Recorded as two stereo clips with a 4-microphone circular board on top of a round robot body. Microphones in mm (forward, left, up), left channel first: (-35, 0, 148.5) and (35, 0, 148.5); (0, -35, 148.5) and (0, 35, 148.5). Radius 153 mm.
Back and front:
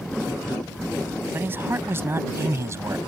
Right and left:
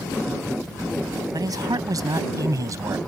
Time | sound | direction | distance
1.3 | a man speaking | 60° left | ?